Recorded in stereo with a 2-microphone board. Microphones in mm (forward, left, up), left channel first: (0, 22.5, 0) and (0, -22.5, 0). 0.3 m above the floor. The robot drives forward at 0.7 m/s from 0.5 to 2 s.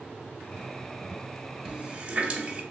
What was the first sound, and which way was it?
A running tap, 25° right (ahead or behind).